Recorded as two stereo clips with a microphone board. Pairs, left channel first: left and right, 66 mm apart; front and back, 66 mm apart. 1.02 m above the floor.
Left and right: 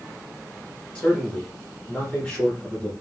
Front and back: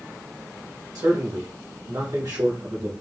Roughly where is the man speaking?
Behind.